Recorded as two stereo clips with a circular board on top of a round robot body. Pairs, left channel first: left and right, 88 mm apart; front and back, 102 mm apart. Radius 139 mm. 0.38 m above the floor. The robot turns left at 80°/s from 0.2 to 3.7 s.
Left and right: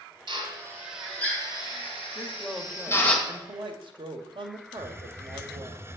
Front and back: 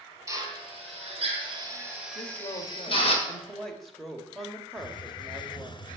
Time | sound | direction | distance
0.3 | a drill | 115° right | 2.5 m
2.1 | a woman speaking | 35° left | 2.0 m
4.8 | a hiss | 30° right | 0.9 m